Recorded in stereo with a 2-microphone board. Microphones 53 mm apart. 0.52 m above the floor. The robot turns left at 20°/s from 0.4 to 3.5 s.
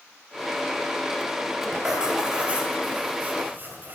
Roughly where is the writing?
Ahead.